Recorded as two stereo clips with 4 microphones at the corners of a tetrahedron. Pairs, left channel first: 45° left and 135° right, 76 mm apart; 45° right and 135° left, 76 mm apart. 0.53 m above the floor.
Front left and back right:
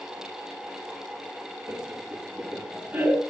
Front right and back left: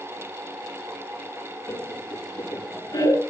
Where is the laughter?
80° right, 6 m; by 3.2 s 65° right, 7 m.